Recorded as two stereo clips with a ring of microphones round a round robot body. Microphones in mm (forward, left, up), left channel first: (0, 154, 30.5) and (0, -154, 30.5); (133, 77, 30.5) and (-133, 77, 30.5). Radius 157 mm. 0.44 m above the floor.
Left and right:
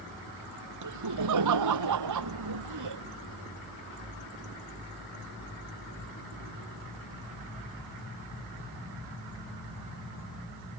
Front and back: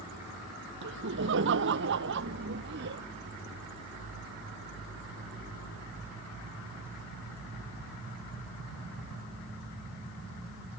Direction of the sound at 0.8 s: 125° right.